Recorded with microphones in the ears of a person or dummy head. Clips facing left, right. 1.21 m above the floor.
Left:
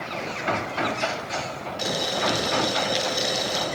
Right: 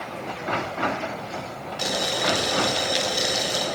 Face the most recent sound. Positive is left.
turn(degrees=0)  # may be behind; listen again after turning